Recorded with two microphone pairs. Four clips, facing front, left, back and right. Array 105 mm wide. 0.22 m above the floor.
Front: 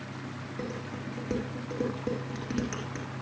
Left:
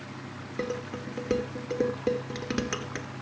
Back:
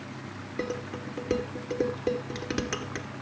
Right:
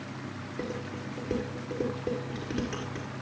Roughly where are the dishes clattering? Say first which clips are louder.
Left 4 dB, back 5 dB; behind left.